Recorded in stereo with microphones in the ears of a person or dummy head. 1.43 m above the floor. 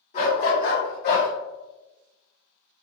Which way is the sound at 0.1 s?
45° left (ahead or behind).